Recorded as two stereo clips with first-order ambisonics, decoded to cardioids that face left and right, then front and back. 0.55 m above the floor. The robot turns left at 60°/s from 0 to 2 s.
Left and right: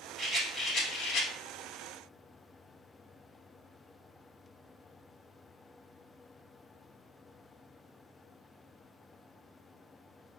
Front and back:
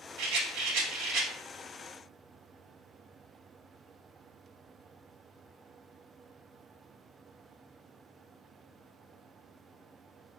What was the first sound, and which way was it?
A rattle, 165° right.